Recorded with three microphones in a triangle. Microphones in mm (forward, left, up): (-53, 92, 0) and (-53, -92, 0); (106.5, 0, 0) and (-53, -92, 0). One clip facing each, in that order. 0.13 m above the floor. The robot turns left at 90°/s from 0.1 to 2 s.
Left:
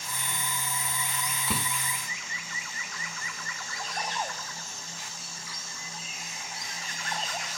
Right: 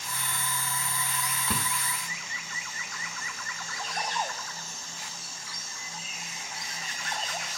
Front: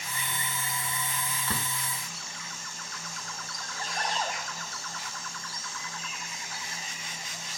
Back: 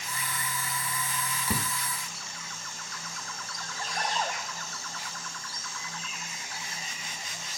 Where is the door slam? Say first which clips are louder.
Left 1 dB, back 4 dB; 170° left; by 1.7 s 145° left.